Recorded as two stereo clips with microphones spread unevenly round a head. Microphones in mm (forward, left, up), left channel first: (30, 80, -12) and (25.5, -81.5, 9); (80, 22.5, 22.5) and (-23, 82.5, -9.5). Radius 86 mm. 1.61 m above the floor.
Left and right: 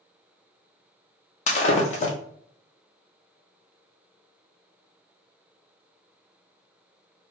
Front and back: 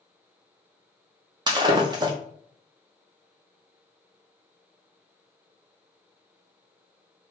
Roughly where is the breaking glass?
Left.